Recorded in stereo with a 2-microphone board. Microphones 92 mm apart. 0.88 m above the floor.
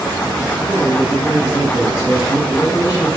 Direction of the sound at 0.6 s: 55° left (ahead or behind).